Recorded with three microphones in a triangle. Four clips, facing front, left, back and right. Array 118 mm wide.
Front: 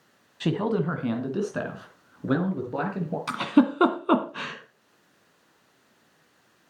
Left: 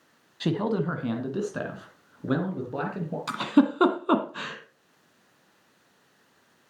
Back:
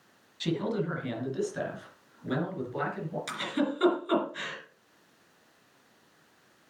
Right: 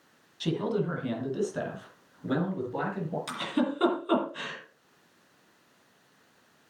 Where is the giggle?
35° left, 1.7 m.